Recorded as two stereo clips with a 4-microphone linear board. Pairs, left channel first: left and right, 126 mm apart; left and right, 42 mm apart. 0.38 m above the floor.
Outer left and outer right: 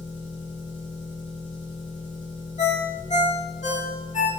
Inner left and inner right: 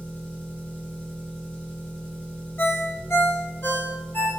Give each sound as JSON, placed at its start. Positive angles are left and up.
{"t": 0.0, "sound": "an engine running", "side_deg": 40, "distance_m": 1.3}
{"t": 2.6, "sound": "a ringtone", "side_deg": 65, "distance_m": 0.6}